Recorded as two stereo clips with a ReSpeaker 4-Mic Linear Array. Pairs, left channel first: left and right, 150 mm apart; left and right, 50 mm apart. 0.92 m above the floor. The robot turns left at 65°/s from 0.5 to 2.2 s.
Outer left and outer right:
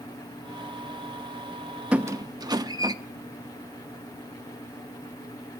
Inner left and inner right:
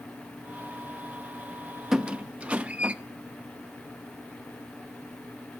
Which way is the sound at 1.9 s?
5° right (ahead or behind).